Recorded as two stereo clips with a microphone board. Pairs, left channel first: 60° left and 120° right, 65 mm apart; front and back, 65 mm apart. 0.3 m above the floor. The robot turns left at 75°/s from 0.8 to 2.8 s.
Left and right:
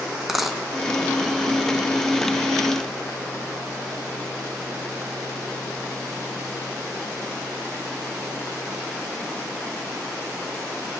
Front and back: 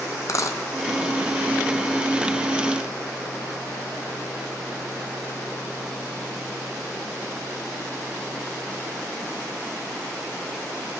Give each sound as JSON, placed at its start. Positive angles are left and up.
{"t": 0.3, "sound": "a dropped coin", "azimuth_deg": -35, "distance_m": 0.9}